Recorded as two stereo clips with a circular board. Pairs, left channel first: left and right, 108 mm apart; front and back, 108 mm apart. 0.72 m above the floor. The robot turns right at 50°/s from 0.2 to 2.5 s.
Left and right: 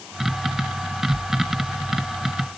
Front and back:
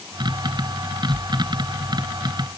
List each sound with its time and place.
Only background noise.